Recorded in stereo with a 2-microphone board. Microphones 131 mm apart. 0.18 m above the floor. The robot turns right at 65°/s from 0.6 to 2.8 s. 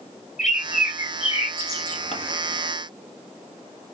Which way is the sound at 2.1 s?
60° left (ahead or behind).